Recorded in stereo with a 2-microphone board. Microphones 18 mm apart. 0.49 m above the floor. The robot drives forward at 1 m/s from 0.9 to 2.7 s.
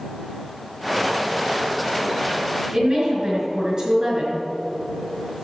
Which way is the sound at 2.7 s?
30° right (ahead or behind).